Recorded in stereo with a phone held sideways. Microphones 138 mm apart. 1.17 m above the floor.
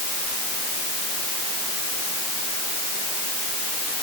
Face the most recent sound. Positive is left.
No sound to turn to.